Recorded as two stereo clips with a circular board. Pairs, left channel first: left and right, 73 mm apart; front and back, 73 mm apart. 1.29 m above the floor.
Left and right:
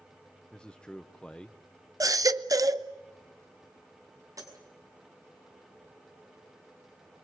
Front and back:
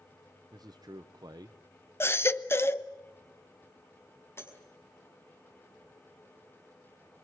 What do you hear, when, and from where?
0.5 s a man speaking: 165° left, 0.7 m
2.0 s a baby crying: 55° right, 0.8 m
4.4 s breaking glass: 55° right, 5.5 m